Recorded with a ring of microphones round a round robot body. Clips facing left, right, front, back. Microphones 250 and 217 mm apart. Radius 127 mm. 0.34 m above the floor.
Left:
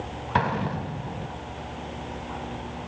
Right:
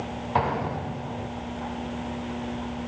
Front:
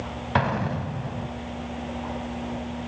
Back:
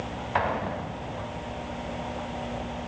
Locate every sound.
0.3 s an explosion: 35° left, 1.5 m